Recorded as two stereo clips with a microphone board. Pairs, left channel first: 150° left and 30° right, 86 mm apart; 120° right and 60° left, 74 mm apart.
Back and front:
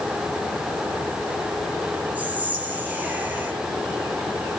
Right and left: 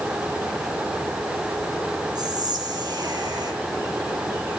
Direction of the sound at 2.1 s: 40° left.